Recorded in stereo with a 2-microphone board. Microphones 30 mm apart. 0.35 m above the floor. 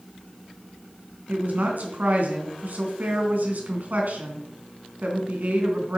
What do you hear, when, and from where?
1.3 s a woman speaking: 65° right (ahead or behind), 3.5 m